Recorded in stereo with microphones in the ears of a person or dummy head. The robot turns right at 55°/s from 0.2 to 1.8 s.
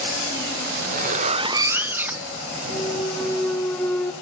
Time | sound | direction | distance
0.7 | a zipper | 75° right | 0.6 m
2.7 | a clunk | 10° left (ahead or behind) | 1.3 m